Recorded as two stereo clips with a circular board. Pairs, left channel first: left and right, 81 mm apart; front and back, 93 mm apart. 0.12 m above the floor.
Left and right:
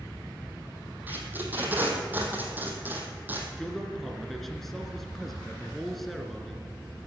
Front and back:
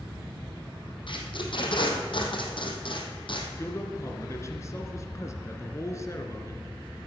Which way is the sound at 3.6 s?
5° left.